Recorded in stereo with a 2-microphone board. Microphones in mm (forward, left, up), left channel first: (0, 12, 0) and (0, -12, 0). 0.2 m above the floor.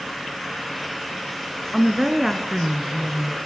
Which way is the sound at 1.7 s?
15° right (ahead or behind).